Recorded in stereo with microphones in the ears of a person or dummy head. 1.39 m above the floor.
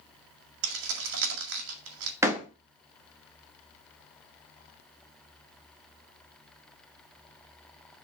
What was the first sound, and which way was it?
Keys jangling, 75° right (ahead or behind).